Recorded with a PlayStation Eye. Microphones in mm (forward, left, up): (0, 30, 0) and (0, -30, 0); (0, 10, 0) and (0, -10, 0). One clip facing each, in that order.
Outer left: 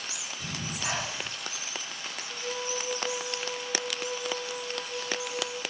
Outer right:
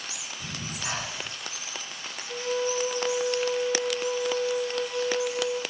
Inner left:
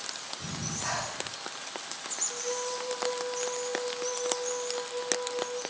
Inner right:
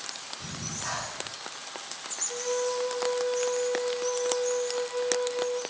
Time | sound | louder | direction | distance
0.4 | breathing | outer left 1 dB, inner left 1 dB | 5° left (ahead or behind) | 6 m
2.3 | a flute | outer right 8 dB, inner right 6 dB | 75° right (ahead or behind) | 8.5 m